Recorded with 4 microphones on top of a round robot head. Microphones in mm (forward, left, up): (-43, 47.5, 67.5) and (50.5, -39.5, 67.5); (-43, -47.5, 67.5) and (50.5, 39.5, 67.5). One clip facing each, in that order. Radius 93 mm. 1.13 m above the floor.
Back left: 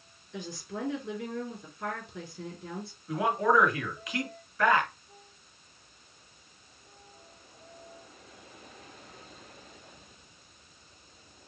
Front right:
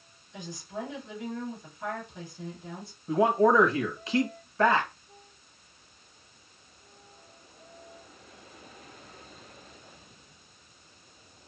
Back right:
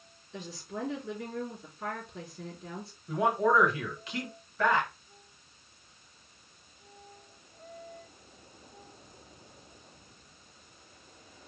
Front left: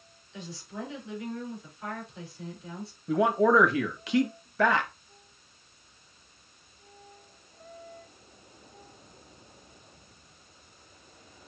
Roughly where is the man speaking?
Ahead.